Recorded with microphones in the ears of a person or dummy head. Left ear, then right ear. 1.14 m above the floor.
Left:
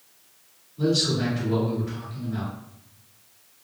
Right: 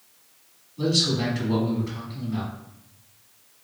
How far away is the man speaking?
About 1.9 m.